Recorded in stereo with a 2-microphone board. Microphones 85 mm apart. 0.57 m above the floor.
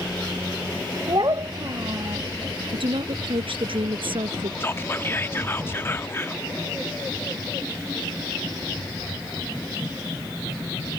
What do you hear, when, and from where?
1.1 s a child speaking: 55° right (ahead or behind)
2.7 s a woman speaking: 85° right
4.6 s whispering: 25° left (ahead or behind)